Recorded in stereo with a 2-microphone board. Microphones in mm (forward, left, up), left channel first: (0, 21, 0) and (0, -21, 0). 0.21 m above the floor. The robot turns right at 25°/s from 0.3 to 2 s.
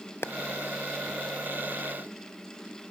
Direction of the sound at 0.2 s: 75° left (ahead or behind).